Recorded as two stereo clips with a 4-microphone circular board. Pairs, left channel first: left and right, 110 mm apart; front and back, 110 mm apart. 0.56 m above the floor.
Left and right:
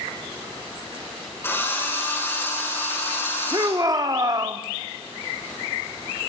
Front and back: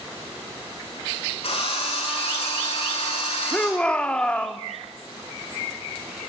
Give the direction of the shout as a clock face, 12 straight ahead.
2 o'clock.